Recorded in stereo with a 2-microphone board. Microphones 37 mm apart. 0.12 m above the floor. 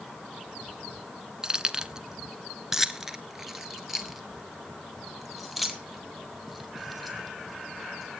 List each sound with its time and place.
1.4 s keys jangling: 20° right (ahead or behind), 0.9 m; by 8.2 s centre (ahead or behind), 4 m